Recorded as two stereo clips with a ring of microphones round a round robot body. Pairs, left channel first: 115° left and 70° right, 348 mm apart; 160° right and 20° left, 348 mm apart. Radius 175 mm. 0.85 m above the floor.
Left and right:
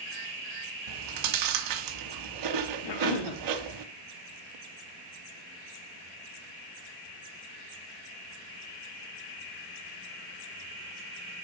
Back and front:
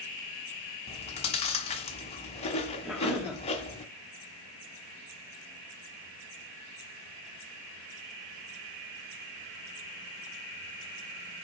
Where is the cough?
110° left, 2 m.